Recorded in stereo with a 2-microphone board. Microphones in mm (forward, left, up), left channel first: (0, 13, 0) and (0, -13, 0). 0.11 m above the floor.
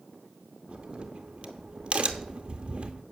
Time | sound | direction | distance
0.7 | a crack | 45° right (ahead or behind) | 0.8 m